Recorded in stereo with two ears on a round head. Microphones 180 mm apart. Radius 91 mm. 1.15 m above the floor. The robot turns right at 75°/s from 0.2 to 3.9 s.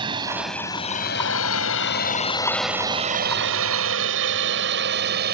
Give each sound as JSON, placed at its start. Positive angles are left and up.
{"t": 0.0, "sound": "a drone", "side_deg": -25}